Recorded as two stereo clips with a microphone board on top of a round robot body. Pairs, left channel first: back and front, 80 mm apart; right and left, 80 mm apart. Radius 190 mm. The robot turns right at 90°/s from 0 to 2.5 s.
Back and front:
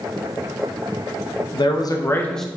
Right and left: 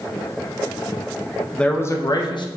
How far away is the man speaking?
About 1.2 m.